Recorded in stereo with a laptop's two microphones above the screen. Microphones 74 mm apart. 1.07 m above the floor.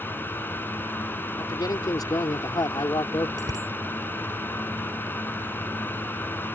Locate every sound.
0.0 s a fan: 25° left (ahead or behind)
1.4 s a man speaking: 65° left (ahead or behind)
3.4 s a bicycle bell: 65° right (ahead or behind)